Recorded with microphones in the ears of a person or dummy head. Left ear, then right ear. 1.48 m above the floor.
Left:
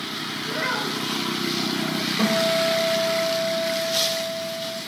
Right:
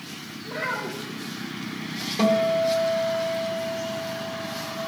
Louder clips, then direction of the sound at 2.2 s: Right 1 dB; 10° right (ahead or behind).